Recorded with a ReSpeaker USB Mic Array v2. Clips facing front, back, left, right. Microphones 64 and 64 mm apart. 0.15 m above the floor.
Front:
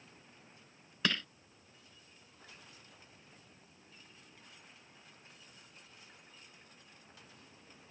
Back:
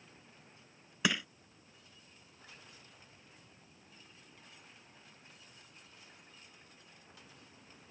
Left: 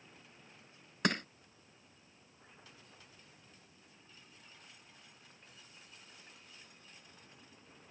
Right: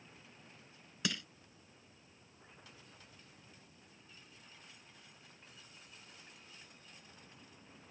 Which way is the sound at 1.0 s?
105° left.